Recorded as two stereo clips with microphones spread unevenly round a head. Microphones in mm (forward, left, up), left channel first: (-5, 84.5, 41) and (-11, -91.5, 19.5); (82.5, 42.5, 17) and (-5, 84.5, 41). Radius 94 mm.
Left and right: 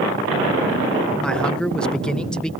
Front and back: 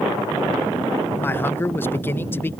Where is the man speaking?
5° right.